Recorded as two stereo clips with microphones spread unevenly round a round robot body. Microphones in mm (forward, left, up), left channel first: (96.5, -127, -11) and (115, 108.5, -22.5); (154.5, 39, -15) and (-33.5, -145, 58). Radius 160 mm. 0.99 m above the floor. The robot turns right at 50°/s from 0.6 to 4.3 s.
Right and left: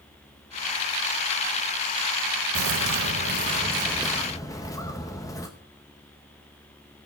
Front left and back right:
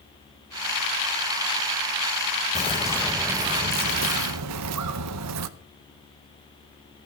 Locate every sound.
2.5 s a bird: 100° left, 0.7 m; by 5.5 s 175° right, 0.7 m